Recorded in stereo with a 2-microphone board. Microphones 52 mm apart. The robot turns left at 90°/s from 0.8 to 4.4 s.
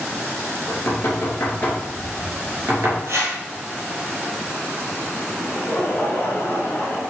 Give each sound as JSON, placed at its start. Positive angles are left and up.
{"t": 0.7, "sound": "knocking", "side_deg": 60, "distance_m": 3.0}
{"t": 3.1, "sound": "a whoosh", "side_deg": -60, "distance_m": 1.6}
{"t": 5.4, "sound": "laughter", "side_deg": 55, "distance_m": 2.5}